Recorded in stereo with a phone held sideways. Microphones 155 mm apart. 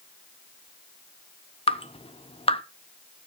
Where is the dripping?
40° left (ahead or behind), 0.7 m.